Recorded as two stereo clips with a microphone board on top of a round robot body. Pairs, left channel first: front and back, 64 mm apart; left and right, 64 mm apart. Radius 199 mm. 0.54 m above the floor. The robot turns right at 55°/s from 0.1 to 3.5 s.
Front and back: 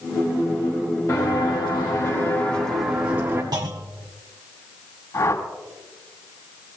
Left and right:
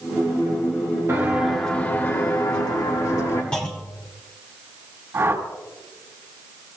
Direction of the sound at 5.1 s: 35° right.